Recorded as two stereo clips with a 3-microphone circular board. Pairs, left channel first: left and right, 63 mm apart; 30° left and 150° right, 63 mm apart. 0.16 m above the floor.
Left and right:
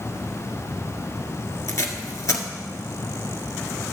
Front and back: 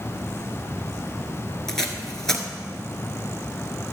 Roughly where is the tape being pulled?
Left.